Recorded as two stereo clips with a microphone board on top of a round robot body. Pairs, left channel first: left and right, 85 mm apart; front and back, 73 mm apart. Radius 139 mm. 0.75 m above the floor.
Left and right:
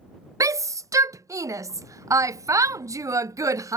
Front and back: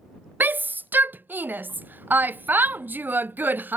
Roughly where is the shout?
Behind right.